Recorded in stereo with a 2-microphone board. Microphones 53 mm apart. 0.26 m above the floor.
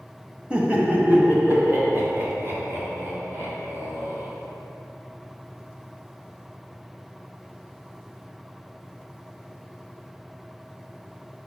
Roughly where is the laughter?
Right.